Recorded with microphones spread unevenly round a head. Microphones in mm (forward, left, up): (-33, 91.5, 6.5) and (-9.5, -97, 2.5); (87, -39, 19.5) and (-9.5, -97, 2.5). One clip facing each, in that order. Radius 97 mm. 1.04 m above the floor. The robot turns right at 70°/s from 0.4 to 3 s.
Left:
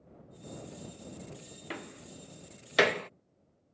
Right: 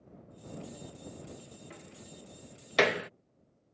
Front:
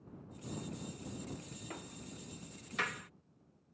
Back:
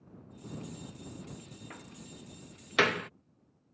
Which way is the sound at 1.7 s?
105° left.